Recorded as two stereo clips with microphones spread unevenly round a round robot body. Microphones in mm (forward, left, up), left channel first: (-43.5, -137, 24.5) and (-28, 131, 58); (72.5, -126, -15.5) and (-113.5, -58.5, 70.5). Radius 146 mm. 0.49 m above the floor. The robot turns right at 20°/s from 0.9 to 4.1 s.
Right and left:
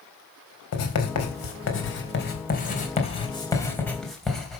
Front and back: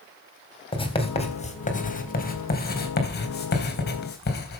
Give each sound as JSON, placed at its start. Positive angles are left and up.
{"t": 0.7, "sound": "writing", "azimuth_deg": -70, "distance_m": 3.0}